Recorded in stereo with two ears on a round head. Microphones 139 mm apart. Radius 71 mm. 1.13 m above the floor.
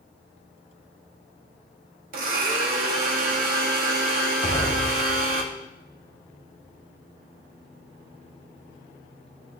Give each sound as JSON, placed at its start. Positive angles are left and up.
{"t": 2.1, "sound": "a blender", "side_deg": -65, "distance_m": 1.4}
{"t": 4.4, "sound": "an explosion", "side_deg": 35, "distance_m": 2.5}